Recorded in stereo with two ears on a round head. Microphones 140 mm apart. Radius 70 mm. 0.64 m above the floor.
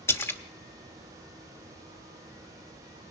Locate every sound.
0.1 s a splash: 15° left (ahead or behind), 1.0 m